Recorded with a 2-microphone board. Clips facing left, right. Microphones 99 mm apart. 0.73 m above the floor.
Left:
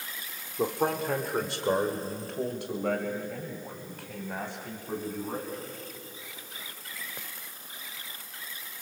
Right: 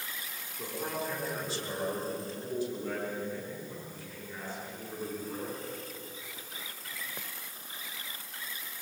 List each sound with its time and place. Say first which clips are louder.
0.6 s a man speaking: left 9 dB; 60° left (ahead or behind), 2.5 m; by 5.7 s 65° left (ahead or behind), 7.5 m